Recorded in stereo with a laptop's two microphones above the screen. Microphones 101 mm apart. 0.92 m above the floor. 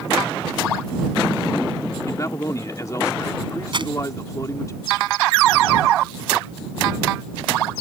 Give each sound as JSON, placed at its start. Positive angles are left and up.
{"t": 2.0, "sound": "a man speaking", "side_deg": 35}
{"t": 3.7, "sound": "crumpling", "side_deg": -50}